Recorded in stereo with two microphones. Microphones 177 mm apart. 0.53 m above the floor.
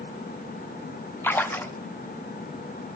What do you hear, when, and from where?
1.2 s a splash: 10° left (ahead or behind), 0.6 m